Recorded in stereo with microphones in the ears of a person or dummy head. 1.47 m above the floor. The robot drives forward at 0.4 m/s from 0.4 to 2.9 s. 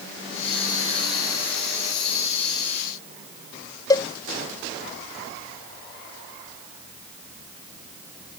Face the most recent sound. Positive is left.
turn(degrees=20)  # may be behind; listen again after turning